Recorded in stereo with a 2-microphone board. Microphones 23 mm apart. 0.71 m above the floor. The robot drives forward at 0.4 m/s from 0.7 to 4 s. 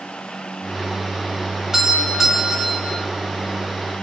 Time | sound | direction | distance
1.7 | a doorbell | 25° right (ahead or behind) | 2 m